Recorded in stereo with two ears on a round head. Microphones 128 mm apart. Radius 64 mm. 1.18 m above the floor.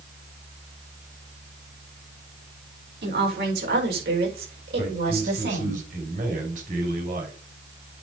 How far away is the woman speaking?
About 4.5 m.